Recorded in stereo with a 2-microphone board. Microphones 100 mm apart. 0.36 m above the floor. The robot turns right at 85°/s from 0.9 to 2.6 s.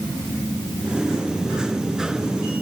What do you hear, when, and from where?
Only background noise.